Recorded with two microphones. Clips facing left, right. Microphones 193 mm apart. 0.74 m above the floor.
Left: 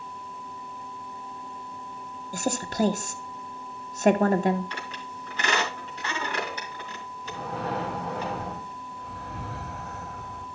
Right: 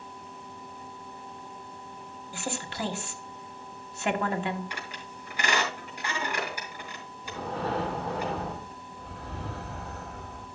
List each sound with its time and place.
2.3 s a woman speaking: 40° left (ahead or behind), 0.9 m
4.7 s a squeak: 10° right (ahead or behind), 3 m
7.2 s breathing: 35° right (ahead or behind), 3 m